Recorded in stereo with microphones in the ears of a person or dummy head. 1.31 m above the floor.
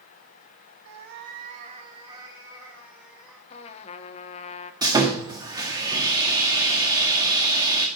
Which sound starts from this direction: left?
A trumpet, at 3.5 s.